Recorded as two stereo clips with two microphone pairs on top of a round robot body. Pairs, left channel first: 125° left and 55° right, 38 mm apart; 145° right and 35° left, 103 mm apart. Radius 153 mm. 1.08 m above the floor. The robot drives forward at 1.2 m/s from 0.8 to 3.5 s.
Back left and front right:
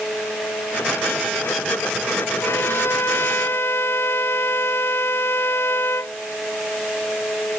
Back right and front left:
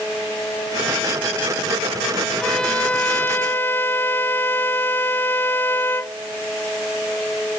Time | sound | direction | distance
2.4 | a violin | 130° left | ?